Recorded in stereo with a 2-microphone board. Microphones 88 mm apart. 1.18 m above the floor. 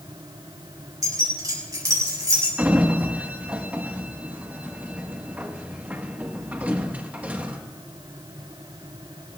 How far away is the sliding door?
About 1.2 m.